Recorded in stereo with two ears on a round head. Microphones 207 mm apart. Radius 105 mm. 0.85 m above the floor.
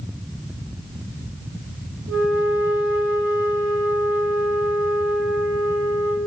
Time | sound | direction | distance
2.1 | a flute | 55° right (ahead or behind) | 6.5 m